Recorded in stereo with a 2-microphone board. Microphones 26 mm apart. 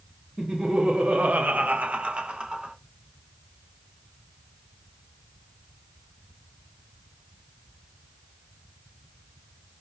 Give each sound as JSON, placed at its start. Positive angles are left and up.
{"t": 0.4, "sound": "laughter", "side_deg": -35, "distance_m": 0.8}